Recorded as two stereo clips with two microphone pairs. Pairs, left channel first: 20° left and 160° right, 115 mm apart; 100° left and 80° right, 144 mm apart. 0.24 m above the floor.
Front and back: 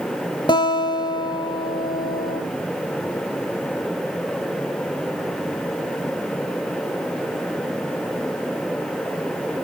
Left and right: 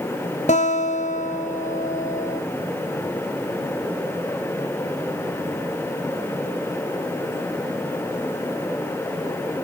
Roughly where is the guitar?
Left.